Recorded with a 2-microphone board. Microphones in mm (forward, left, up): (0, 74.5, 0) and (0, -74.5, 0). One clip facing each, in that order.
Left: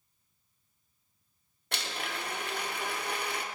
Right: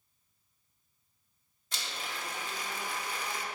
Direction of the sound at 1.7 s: 70° left (ahead or behind).